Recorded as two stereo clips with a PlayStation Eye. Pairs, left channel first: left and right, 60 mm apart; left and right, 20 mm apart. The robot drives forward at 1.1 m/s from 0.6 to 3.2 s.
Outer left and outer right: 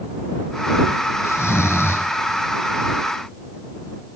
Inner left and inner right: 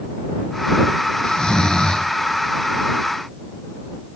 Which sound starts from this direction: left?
Snoring, at 1.2 s.